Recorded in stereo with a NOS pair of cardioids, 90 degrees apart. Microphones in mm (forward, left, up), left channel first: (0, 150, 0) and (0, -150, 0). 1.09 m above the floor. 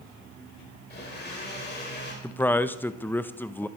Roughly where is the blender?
Ahead left.